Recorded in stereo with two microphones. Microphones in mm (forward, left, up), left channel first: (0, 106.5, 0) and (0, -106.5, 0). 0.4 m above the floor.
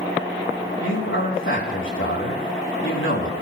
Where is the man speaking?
70° left (ahead or behind), 4 m.